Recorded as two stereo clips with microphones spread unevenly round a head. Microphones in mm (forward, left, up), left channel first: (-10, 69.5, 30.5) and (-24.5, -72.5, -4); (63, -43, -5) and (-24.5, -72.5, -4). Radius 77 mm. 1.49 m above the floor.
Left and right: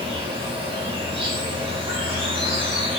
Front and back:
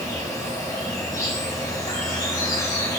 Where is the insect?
35° right, 4.5 m.